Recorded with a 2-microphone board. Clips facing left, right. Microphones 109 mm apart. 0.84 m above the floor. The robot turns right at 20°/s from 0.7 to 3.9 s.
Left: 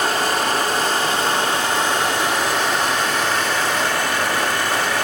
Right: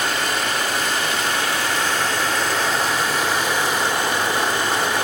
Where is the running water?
140° left, 2.5 m; by 5.0 s 155° right, 2.5 m.